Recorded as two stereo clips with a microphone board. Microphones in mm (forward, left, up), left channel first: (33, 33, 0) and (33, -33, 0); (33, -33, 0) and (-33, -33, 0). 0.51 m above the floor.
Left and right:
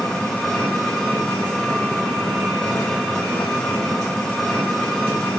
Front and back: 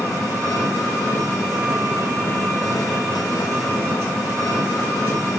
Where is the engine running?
15° left, 1.6 m.